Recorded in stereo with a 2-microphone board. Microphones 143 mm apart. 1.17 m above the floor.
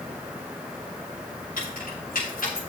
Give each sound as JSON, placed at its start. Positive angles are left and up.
{"t": 1.6, "sound": "keys jangling", "side_deg": 85, "distance_m": 7.5}